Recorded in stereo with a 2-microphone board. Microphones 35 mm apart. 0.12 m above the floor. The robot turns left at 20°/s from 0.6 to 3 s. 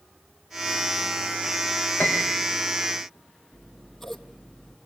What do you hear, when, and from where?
2.0 s a piano: 65° left (ahead or behind), 6 m; by 2.5 s 55° left (ahead or behind), 6 m
3.5 s scissors: 5° left (ahead or behind), 2.5 m